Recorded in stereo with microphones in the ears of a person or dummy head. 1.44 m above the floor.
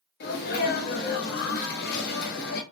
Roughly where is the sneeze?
Left.